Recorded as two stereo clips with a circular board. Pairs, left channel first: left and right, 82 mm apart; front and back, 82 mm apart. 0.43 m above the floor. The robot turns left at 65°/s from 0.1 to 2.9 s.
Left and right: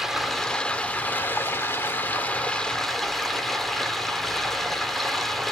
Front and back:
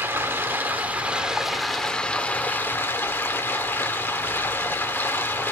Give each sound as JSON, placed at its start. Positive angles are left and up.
{"t": 0.0, "sound": "running water", "azimuth_deg": -170, "distance_m": 1.2}